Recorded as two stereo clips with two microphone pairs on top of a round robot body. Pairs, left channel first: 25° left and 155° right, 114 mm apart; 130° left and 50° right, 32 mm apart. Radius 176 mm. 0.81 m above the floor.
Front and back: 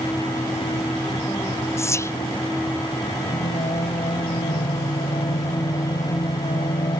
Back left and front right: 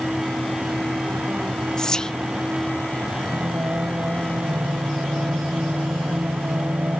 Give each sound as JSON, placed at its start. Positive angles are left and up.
{"t": 1.8, "sound": "whispering", "azimuth_deg": 80}
{"t": 3.3, "sound": "singing", "azimuth_deg": -25}